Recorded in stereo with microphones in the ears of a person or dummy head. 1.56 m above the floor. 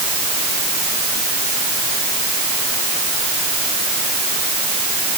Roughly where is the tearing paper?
I don't hear tearing paper.